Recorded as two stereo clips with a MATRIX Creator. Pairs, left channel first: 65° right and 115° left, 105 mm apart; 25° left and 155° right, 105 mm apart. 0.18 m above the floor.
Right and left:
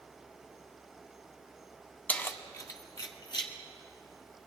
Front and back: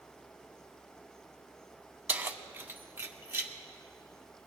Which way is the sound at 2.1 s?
115° right.